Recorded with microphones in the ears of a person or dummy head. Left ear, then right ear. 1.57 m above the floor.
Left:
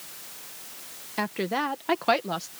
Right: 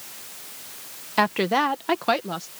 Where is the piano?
No piano in this recording.